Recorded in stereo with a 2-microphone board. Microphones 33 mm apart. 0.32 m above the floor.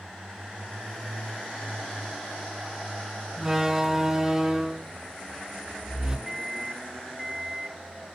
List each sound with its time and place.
3.4 s a door slam: 15° right (ahead or behind), 3 m
6.3 s a microwave: 5° right (ahead or behind), 1.2 m